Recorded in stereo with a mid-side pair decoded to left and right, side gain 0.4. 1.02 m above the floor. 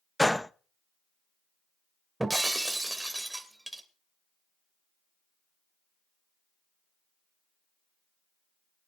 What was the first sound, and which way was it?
A gunshot, 5° left.